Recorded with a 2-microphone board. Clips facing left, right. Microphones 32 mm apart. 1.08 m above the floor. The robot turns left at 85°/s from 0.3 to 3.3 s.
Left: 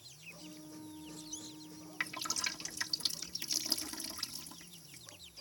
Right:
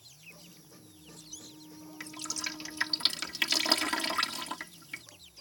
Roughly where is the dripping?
Left.